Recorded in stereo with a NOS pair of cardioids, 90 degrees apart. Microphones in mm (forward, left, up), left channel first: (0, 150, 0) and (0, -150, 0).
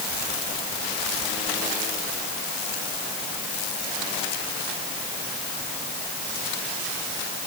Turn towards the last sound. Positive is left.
No sound to turn to.